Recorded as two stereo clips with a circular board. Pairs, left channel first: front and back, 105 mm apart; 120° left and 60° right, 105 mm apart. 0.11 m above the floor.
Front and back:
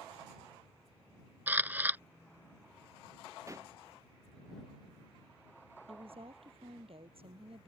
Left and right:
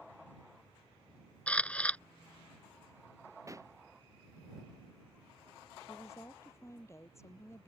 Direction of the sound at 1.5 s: 165° left.